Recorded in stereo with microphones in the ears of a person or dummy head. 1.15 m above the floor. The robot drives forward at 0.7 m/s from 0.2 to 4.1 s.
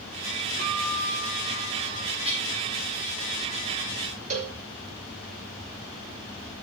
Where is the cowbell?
40° right (ahead or behind), 1.1 m.